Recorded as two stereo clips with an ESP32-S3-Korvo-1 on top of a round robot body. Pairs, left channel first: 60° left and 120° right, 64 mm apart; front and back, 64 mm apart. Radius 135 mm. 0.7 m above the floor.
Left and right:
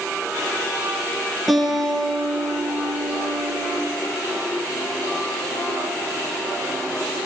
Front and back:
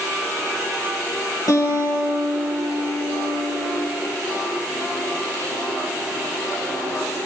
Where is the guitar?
30° right, 8.5 m.